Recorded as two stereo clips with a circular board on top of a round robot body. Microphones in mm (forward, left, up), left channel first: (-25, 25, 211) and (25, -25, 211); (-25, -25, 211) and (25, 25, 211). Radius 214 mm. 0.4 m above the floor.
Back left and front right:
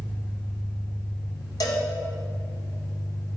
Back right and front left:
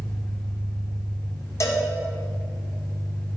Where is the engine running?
Straight behind, 3.5 m.